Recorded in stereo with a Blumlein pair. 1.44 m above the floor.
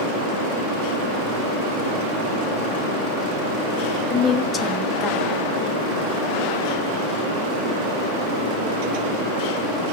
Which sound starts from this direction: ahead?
A woman speaking, at 4.1 s.